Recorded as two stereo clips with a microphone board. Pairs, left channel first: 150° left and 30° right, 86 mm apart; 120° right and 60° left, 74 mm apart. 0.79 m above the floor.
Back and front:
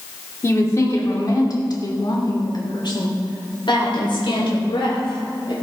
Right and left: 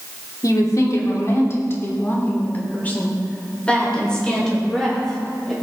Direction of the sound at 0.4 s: 155° right.